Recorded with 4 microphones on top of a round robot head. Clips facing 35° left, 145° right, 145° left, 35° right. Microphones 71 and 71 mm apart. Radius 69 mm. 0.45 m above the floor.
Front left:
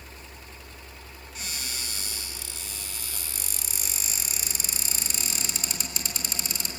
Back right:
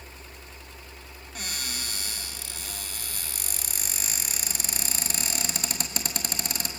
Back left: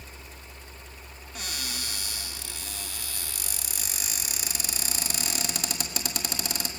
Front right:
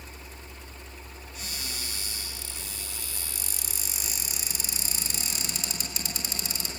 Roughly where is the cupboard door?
Behind.